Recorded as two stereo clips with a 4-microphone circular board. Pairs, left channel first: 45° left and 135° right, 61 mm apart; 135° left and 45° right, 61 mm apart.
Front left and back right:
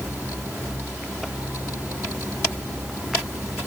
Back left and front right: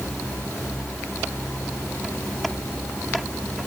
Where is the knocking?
No knocking in this recording.